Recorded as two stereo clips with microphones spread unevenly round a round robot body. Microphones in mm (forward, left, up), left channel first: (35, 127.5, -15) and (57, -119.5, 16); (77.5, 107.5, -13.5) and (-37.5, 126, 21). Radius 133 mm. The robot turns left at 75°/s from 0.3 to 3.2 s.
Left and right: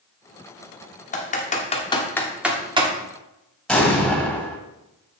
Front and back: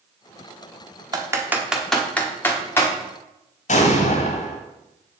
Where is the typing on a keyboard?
110° left, 1.2 m; by 2.9 s 25° right, 1.2 m.